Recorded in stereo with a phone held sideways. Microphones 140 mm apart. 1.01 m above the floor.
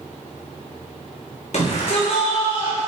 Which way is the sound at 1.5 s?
55° left (ahead or behind).